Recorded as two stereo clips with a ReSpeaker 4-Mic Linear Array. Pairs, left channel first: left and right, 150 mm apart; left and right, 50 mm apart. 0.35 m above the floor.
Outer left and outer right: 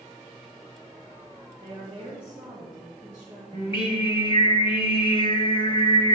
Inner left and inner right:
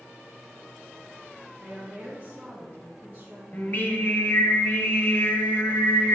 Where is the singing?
35° left (ahead or behind), 0.9 m.